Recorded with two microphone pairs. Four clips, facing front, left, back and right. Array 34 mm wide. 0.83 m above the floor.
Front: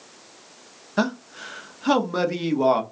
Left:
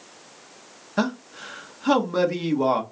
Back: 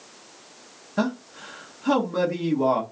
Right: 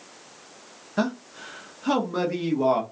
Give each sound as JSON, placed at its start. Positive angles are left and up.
{"t": 1.0, "sound": "a man speaking", "azimuth_deg": 25, "distance_m": 0.8}